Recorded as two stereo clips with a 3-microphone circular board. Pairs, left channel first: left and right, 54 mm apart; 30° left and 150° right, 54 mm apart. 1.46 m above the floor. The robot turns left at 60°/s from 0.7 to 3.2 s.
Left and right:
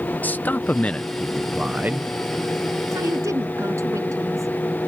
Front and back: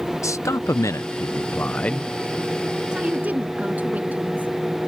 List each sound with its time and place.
0.2 s a man speaking: 35° left; by 2.1 s 50° right
2.9 s a woman speaking: 75° right; by 4.5 s 90° right